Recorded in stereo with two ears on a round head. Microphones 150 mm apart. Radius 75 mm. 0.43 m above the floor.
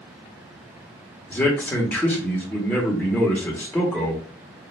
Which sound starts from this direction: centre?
A man speaking, at 1.3 s.